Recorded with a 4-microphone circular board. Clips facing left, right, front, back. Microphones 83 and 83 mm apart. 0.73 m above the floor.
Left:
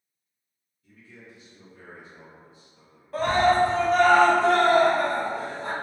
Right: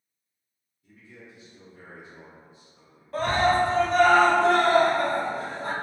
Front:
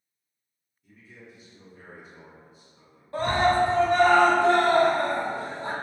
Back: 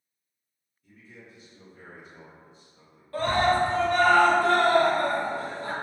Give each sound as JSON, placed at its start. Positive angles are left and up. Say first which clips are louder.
{"t": 0.8, "sound": "a man speaking", "louder": "even, even", "azimuth_deg": -85, "distance_m": 1.1}
{"t": 3.1, "sound": "a scream", "louder": "left 2 dB, front 1 dB", "azimuth_deg": 0, "distance_m": 0.5}